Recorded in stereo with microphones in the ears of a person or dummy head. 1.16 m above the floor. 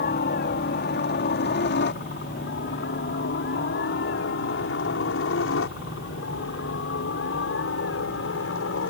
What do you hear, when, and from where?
0.0 s a helicopter: 50° left (ahead or behind); by 8.9 s 70° left (ahead or behind)